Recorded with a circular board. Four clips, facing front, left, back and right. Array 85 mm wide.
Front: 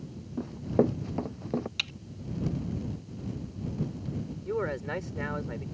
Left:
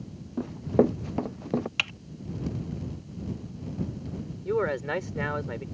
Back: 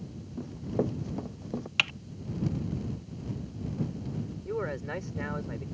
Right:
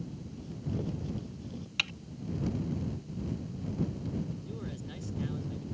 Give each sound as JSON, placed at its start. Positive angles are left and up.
{"t": 0.4, "sound": "running footsteps", "azimuth_deg": 70}
{"t": 1.8, "sound": "typing on a keyboard", "azimuth_deg": 155}
{"t": 4.5, "sound": "a man speaking", "azimuth_deg": 80}